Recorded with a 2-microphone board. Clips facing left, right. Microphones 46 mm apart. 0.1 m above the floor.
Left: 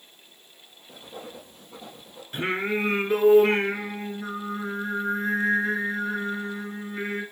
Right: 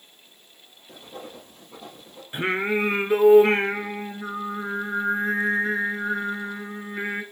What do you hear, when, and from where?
0.9 s writing: centre (ahead or behind), 3 m
2.3 s singing: 15° right (ahead or behind), 1.5 m